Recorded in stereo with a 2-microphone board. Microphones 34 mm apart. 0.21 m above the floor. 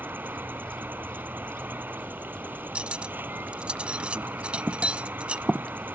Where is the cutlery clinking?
40° right (ahead or behind).